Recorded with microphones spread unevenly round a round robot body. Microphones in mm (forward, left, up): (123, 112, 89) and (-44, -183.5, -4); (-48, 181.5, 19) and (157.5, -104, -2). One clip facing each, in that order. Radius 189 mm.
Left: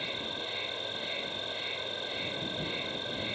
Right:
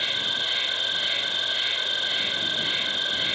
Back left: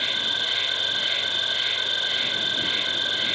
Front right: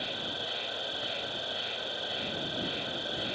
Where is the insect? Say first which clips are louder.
Right 1 dB, back left 1 dB; straight behind.